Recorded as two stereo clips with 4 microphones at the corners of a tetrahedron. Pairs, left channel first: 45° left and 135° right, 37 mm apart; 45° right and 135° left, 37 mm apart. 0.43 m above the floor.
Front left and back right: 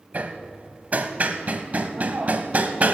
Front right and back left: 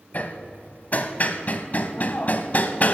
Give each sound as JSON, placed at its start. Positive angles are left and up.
{"t": 0.1, "sound": "hammering", "azimuth_deg": -90, "distance_m": 0.7}